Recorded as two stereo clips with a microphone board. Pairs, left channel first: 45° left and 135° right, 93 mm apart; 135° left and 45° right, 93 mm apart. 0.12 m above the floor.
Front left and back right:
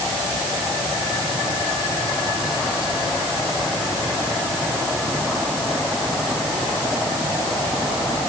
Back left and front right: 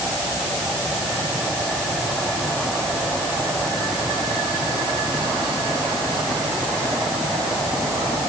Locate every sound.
Only background noise.